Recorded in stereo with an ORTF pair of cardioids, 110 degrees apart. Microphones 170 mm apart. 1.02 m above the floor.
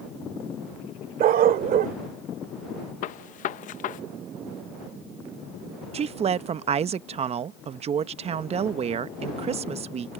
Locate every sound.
1.2 s a dog barking: 65° right
3.0 s a gunshot: 55° left
5.9 s a woman speaking: 40° right